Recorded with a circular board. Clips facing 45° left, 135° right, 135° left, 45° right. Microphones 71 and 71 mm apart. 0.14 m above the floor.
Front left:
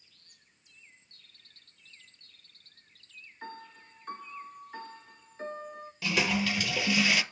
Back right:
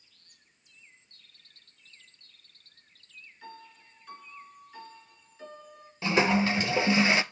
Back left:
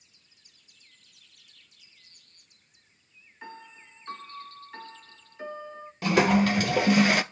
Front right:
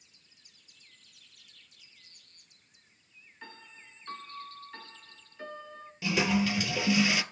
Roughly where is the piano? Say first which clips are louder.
Front left 4 dB, back left 6 dB; ahead left.